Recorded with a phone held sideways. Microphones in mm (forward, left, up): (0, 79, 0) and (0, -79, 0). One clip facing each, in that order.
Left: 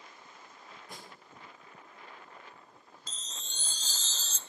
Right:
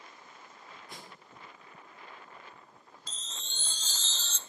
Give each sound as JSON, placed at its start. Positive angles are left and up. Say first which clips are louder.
{"t": 0.9, "sound": "a snare drum", "louder": "left 1 dB", "side_deg": 50, "distance_m": 6.0}
{"t": 3.1, "sound": "a chime", "louder": "right 1 dB", "side_deg": 40, "distance_m": 0.5}